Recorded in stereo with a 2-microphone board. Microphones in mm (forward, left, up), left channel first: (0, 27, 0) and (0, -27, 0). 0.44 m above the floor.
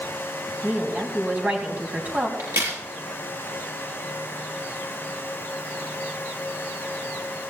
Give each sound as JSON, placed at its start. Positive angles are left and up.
{"t": 0.6, "sound": "a woman speaking", "side_deg": -30, "distance_m": 3.5}
{"t": 2.4, "sound": "a crack", "side_deg": -70, "distance_m": 6.5}